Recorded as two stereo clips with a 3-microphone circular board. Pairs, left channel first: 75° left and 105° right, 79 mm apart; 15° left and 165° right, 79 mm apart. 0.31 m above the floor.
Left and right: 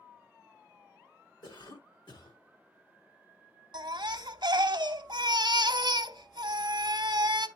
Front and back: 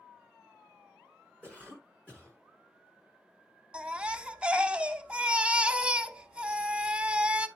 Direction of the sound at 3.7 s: 90° right.